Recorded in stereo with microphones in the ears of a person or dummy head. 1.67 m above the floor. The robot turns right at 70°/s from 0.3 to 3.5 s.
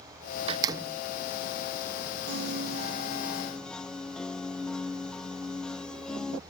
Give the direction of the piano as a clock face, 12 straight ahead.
3 o'clock.